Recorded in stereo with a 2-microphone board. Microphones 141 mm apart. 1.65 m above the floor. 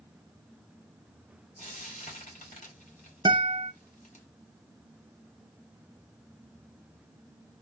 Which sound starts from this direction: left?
Frying, at 1.6 s.